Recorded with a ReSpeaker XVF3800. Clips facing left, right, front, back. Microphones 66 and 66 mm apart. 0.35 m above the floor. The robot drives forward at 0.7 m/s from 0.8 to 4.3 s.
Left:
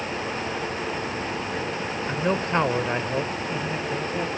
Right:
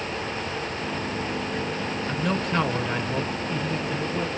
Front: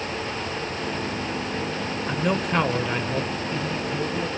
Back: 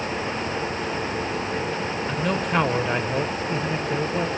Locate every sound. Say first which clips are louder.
2.1 s a man speaking: left 3 dB, front 1 dB; 60° left, 1.1 m; by 4.3 s 160° left, 1.6 m